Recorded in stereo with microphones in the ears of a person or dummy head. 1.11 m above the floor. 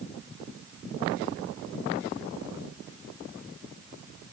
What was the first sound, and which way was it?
Only background noise.